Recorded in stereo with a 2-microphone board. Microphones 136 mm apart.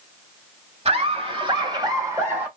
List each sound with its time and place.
0.8 s laughter: 45° right (ahead or behind), 1.4 m; by 2.5 s 15° right (ahead or behind), 1.2 m